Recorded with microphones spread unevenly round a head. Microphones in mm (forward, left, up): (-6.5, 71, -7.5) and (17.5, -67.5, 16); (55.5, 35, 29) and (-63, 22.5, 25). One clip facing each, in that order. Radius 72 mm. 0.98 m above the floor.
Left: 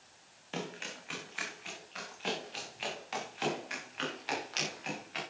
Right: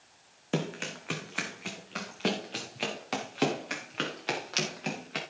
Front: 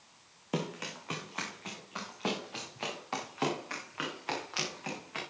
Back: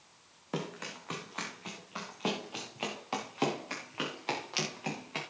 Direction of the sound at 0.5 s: 70° right.